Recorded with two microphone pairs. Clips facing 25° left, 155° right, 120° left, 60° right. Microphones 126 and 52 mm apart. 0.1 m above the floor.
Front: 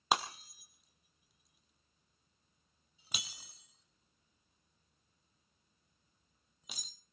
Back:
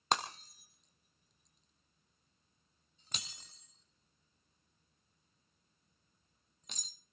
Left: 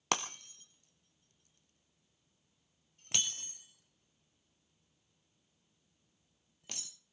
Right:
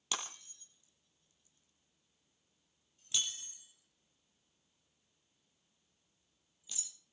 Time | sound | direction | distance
0.1 | breaking glass | 105° left | 1.4 m